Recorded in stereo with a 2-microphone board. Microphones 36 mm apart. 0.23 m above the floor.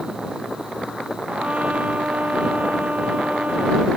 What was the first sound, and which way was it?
A trumpet, 40° right (ahead or behind).